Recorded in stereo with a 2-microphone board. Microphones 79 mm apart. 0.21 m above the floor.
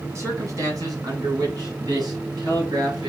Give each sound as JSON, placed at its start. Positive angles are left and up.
{"t": 0.1, "sound": "a man speaking", "side_deg": -40, "distance_m": 1.4}